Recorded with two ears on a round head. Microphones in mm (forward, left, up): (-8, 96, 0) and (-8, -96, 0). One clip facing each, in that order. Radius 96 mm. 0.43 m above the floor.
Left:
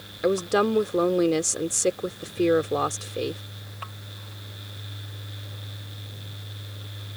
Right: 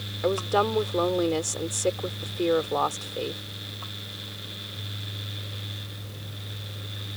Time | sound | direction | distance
0.2 | a woman speaking | 25° left (ahead or behind) | ?